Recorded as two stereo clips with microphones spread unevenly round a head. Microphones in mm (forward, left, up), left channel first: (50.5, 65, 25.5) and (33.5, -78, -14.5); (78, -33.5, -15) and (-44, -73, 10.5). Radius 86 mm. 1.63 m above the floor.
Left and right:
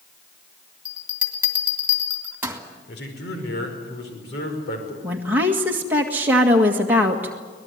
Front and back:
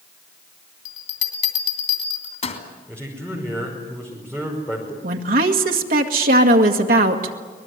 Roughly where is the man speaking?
Left.